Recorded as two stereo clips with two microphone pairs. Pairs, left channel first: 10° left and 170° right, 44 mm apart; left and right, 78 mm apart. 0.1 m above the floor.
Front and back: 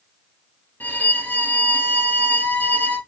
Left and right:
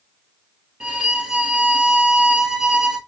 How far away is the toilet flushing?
I don't hear a toilet flushing.